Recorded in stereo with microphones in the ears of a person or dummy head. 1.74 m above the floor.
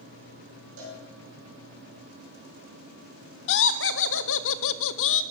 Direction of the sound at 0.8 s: 70° right (ahead or behind).